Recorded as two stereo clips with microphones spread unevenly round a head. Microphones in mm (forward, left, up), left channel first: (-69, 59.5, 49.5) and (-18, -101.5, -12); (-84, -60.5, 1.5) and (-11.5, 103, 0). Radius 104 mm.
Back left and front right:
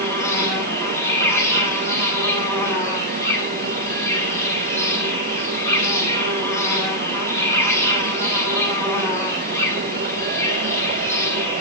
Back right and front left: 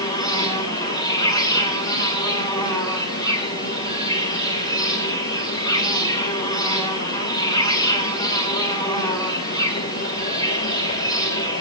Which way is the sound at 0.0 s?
Straight behind.